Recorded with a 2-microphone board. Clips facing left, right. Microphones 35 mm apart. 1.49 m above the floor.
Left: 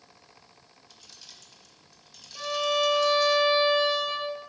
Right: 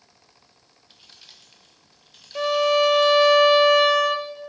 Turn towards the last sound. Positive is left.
turn(degrees=-90)